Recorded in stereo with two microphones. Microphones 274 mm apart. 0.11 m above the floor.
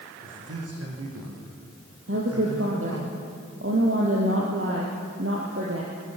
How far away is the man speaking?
About 5.5 m.